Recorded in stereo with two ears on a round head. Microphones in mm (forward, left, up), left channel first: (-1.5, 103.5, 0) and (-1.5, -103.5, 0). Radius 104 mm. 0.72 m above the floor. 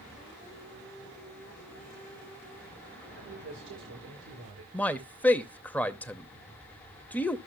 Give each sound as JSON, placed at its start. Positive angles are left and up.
{"t": 3.2, "sound": "a man speaking", "side_deg": -55, "distance_m": 3.0}
{"t": 4.7, "sound": "a man speaking", "side_deg": 5, "distance_m": 0.8}